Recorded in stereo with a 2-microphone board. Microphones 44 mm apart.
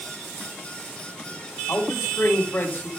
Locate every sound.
1.7 s a man speaking: 45° left (ahead or behind), 5.5 m